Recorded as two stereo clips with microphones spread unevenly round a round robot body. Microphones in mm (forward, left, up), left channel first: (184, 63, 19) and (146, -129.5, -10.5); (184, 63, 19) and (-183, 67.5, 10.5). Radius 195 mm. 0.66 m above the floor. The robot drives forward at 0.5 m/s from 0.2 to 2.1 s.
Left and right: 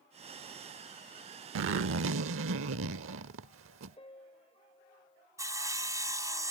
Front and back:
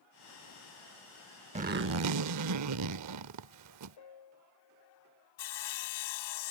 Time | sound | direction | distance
1.6 | a zipper | 105° right | ?
4.0 | a piano | 20° left | ?
5.4 | sawing | 25° right | ?